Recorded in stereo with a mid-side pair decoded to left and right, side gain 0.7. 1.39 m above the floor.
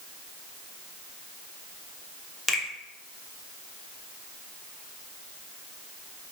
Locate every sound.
2.5 s a finger snap: 20° left, 0.8 m